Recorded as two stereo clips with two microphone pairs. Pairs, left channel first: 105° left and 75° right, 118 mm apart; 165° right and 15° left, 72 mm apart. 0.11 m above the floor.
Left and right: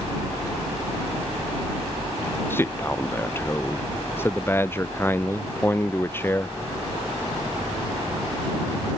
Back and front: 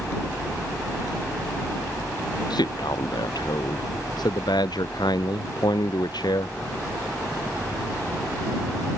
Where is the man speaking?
Straight behind.